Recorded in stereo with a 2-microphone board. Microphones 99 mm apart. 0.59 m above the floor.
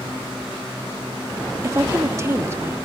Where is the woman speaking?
30° right (ahead or behind), 0.7 m; by 2.8 s 25° right (ahead or behind), 1.1 m.